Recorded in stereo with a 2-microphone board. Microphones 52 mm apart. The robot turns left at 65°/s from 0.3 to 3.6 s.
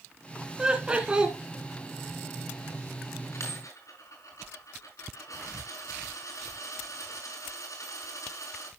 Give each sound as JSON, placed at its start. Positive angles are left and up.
{"t": 0.6, "sound": "laughter", "side_deg": -15, "distance_m": 1.1}
{"t": 3.3, "sound": "a dropped coin", "side_deg": 60, "distance_m": 6.0}